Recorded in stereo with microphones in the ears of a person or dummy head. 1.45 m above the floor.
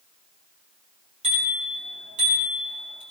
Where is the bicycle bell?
35° right (ahead or behind), 6 m.